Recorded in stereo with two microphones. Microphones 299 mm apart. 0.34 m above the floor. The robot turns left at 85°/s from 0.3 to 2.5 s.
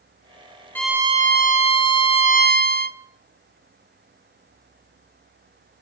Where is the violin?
10° left, 0.8 m; by 3.0 s 140° right, 0.8 m.